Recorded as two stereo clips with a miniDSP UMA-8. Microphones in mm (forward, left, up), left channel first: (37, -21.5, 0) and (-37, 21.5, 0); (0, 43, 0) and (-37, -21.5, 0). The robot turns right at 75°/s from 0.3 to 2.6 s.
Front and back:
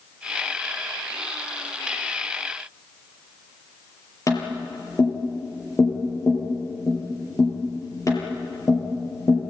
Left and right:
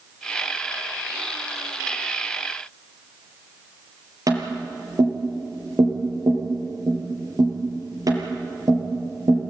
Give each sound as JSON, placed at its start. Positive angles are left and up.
{"t": 4.3, "sound": "tapping", "azimuth_deg": -80, "distance_m": 6.0}